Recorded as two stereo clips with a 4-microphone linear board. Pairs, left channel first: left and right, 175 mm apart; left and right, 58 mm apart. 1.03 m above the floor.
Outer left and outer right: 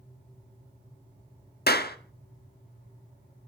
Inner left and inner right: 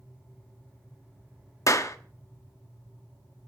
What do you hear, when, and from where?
1.7 s a clap: 65° left (ahead or behind), 1.3 m